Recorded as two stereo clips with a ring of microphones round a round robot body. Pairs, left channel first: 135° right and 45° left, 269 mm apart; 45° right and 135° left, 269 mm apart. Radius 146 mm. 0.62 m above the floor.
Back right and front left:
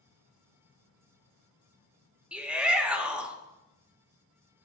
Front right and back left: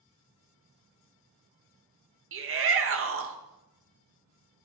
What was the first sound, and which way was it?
A shout, 130° left.